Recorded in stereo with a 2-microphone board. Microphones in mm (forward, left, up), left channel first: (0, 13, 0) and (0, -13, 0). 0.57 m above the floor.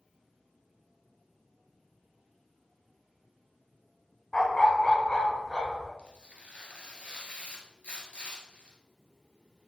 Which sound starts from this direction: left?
Tearing paper, at 6.0 s.